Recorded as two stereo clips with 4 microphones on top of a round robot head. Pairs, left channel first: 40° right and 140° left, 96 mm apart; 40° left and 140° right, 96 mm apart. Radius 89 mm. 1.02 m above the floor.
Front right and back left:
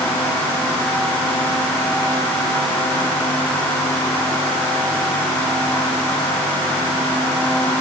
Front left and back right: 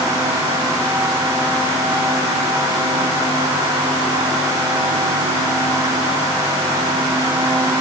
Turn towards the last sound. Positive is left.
No sound to turn to.